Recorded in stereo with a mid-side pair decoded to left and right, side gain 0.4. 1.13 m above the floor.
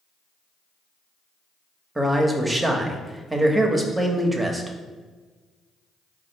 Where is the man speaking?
20° right, 1.0 m.